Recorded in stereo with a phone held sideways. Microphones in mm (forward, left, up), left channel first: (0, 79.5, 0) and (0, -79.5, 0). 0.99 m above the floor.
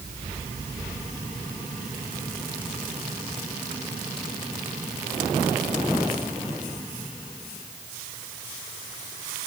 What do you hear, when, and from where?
Only background noise.